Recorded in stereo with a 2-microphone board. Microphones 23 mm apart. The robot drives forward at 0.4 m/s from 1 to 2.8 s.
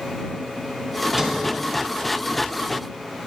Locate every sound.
1.2 s a sliding door: 25° right (ahead or behind), 1.7 m; by 1.4 s 20° right (ahead or behind), 1.8 m